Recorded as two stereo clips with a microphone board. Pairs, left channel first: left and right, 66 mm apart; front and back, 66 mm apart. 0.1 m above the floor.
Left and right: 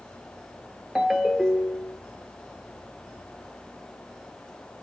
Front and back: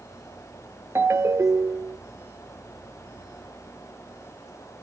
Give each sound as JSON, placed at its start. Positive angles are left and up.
{"t": 0.9, "sound": "a ringtone", "azimuth_deg": -170, "distance_m": 0.6}